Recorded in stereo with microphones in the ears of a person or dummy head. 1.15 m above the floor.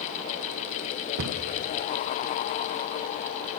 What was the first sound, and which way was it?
A cupboard door, 70° right (ahead or behind).